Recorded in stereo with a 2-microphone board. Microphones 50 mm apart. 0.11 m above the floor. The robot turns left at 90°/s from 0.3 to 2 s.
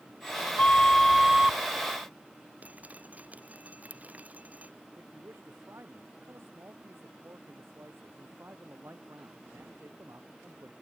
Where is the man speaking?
55° right (ahead or behind).